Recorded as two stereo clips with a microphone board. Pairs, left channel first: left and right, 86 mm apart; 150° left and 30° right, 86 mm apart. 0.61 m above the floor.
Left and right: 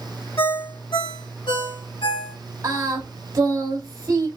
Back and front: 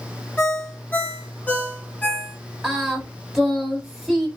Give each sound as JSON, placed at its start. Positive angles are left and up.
{"t": 0.4, "sound": "a ringtone", "azimuth_deg": 80, "distance_m": 1.1}
{"t": 2.6, "sound": "singing", "azimuth_deg": -110, "distance_m": 1.1}